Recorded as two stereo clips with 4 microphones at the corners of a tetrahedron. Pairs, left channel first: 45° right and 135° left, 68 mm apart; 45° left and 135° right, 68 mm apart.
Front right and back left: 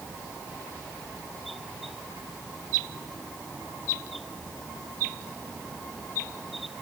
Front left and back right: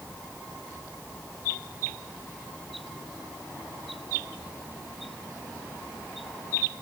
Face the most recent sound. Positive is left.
No sound to turn to.